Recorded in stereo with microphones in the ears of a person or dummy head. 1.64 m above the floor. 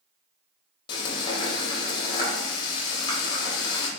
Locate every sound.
0.9 s frying: 30° left (ahead or behind), 1.0 m